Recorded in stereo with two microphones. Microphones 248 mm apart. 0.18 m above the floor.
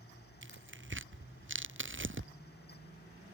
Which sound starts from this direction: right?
Tearing paper, at 0.4 s.